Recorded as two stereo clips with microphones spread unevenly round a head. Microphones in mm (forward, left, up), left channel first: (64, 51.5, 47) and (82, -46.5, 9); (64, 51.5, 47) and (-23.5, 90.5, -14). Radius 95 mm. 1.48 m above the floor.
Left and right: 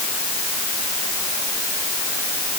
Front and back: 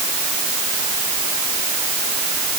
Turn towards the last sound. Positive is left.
No sound to turn to.